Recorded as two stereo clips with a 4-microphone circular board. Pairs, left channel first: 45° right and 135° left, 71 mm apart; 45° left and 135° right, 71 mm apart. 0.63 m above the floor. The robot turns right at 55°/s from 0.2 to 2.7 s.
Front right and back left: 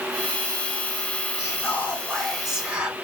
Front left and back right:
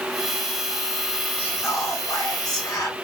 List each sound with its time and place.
1.4 s whispering: 5° right, 1.1 m; by 3.0 s 65° left, 1.1 m